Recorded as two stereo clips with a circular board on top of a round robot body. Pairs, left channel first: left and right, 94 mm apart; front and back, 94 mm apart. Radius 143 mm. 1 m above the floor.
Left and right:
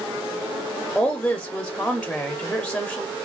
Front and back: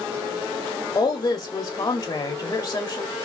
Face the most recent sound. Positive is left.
turn(degrees=10)